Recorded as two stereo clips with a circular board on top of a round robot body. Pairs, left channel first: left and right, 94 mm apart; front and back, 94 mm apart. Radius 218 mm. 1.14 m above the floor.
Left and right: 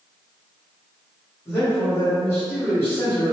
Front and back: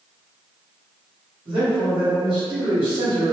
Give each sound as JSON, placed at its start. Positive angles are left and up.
{"t": 1.4, "sound": "a man speaking", "azimuth_deg": 155, "distance_m": 1.8}